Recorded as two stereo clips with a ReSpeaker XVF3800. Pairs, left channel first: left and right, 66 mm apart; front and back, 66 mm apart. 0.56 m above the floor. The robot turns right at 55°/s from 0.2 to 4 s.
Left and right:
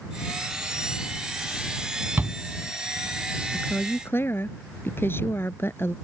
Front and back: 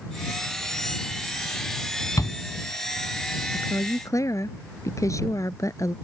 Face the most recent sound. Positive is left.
turn(degrees=35)